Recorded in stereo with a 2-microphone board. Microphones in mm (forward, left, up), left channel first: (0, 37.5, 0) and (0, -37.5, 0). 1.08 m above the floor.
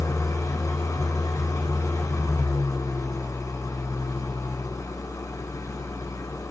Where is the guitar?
No guitar in this recording.